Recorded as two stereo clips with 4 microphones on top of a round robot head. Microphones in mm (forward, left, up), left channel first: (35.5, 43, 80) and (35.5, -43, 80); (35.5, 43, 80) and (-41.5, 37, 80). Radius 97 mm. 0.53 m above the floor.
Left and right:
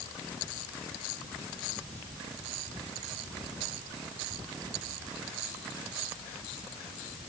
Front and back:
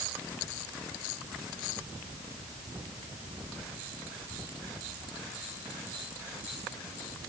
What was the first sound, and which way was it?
Only background noise.